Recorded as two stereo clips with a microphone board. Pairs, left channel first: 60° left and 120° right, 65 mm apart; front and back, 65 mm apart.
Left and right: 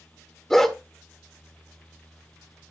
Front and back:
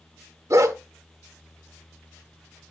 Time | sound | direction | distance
0.5 | a dog barking | 145° left | 1.0 m